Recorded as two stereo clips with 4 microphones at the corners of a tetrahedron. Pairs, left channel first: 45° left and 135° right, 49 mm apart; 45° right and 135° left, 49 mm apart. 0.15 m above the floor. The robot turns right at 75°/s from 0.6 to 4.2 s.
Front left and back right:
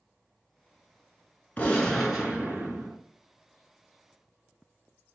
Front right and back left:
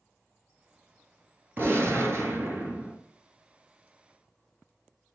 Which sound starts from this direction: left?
A gunshot, at 1.6 s.